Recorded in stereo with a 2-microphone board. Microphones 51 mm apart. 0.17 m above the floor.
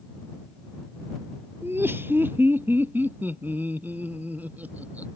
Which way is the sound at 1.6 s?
50° right (ahead or behind).